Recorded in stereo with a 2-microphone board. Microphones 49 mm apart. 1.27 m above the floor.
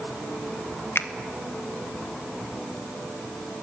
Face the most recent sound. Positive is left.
turn(degrees=55)  # may be behind; listen again after turning